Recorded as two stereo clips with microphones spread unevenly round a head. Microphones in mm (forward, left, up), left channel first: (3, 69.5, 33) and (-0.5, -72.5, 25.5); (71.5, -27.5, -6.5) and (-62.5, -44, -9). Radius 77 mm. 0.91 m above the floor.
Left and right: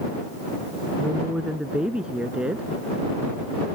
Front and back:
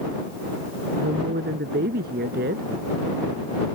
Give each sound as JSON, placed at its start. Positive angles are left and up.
{"t": 1.0, "sound": "a woman speaking", "azimuth_deg": -175}